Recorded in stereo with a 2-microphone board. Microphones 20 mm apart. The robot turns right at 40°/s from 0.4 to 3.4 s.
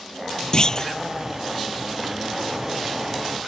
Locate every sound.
0.5 s a clunk: 40° left (ahead or behind); by 0.9 s 25° left (ahead or behind)